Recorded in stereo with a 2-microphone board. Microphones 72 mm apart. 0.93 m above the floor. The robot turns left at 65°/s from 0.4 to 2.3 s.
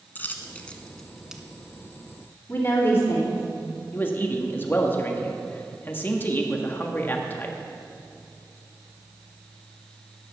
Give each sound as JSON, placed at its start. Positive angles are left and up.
{"t": 0.1, "sound": "a dropped coin", "side_deg": 25, "distance_m": 1.0}
{"t": 2.5, "sound": "a woman speaking", "side_deg": 40, "distance_m": 3.0}
{"t": 3.9, "sound": "a man speaking", "side_deg": 30, "distance_m": 1.4}